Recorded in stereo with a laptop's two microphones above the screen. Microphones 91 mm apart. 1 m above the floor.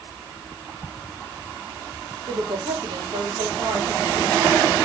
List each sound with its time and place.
2.3 s a woman speaking: 45° right (ahead or behind), 1.2 m